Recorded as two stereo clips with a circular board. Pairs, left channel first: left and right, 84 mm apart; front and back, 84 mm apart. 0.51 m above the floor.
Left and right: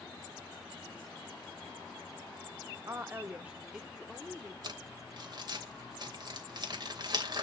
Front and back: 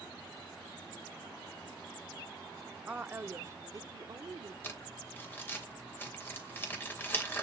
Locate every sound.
2.9 s a woman speaking: 115° right, 0.9 m; by 4.5 s 170° left, 1.3 m
4.6 s crumpling: 65° right, 3 m